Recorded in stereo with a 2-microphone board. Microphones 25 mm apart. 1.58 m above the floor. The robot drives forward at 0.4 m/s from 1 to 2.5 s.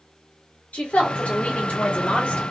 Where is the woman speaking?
80° left, 1.8 m; by 2.4 s 85° left, 1.8 m.